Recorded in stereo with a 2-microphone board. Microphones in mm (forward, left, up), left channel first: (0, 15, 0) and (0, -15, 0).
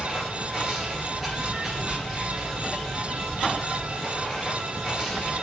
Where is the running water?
Centre (ahead or behind), 1.7 m.